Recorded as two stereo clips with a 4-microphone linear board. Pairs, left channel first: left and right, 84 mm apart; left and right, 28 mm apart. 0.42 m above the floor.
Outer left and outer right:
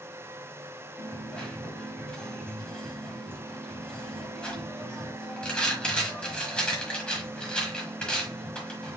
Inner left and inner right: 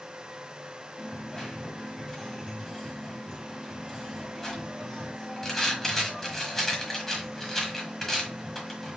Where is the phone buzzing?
No phone buzzing in this recording.